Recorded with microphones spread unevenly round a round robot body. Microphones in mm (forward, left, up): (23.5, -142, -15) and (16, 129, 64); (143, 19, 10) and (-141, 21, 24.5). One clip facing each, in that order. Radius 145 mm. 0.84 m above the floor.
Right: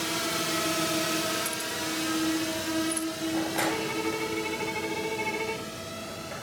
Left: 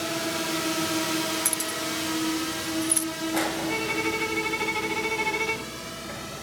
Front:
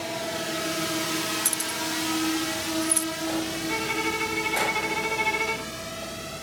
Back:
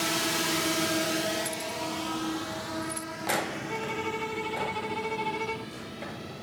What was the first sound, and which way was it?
A drone, 145° right.